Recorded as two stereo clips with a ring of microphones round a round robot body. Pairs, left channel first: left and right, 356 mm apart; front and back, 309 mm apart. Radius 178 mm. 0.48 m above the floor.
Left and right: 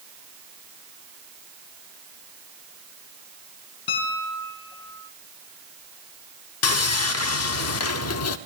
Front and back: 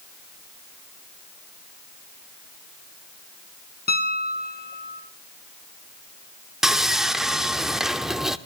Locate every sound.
3.9 s a piano: 60° left, 3 m
6.6 s sawing: 95° left, 0.8 m